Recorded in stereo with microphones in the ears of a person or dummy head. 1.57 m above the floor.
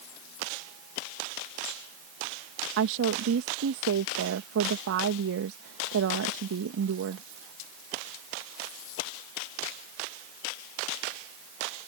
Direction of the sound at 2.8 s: 65° right (ahead or behind).